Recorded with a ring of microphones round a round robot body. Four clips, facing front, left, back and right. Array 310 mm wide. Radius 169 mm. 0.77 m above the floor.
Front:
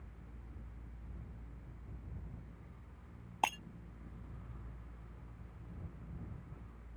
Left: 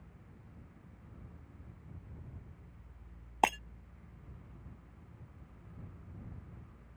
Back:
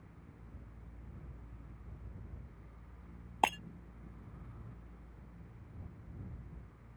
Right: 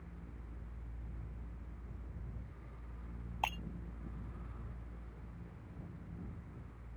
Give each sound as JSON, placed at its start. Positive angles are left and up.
{"t": 3.4, "sound": "breaking glass", "azimuth_deg": 115}